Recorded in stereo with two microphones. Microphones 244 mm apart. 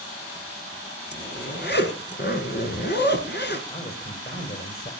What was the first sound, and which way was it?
A zipper, 45° left (ahead or behind).